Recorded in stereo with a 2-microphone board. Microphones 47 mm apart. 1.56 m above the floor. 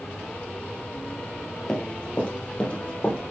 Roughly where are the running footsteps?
Centre.